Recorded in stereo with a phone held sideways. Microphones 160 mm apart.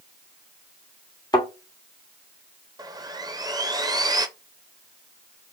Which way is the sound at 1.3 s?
25° left (ahead or behind).